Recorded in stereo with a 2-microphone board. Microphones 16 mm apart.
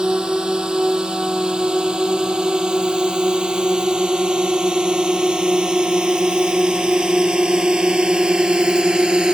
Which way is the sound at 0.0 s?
75° right (ahead or behind).